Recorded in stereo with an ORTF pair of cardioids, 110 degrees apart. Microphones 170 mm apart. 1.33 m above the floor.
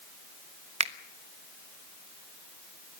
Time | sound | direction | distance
0.8 | a finger snap | 40° right | 1.1 m